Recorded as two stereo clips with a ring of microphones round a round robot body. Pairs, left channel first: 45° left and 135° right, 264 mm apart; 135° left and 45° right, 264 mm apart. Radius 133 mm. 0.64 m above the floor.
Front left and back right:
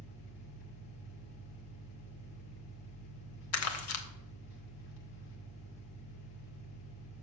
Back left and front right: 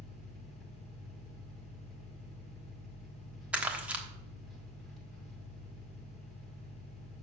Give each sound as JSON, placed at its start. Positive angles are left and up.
{"t": 0.0, "sound": "an engine running", "azimuth_deg": 45, "distance_m": 1.9}
{"t": 3.5, "sound": "crumpling", "azimuth_deg": 40, "distance_m": 1.2}